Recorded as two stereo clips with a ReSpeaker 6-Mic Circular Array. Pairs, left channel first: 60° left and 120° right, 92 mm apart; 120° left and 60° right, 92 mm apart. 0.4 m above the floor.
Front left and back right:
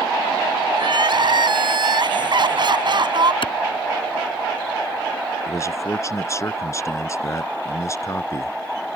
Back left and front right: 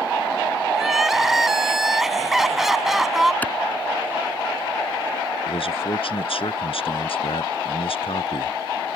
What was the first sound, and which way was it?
Crying, 145° right.